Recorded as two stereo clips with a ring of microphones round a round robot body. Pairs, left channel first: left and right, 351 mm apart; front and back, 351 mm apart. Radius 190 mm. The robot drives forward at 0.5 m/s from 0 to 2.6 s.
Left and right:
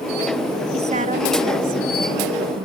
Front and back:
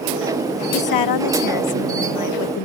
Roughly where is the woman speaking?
Ahead.